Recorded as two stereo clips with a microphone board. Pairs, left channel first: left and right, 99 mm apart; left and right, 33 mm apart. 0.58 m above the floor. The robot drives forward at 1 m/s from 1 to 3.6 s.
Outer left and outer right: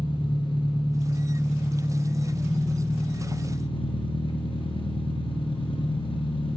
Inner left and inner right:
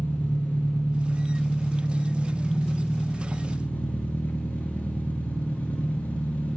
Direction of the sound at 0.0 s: 60° left (ahead or behind).